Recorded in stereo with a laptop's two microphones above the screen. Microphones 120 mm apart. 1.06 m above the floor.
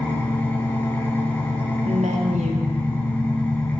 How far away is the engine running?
About 1.9 m.